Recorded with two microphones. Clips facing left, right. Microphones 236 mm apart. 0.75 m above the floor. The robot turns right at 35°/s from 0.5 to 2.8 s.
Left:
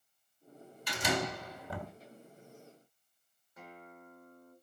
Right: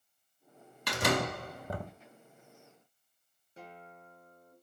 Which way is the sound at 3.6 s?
30° right (ahead or behind).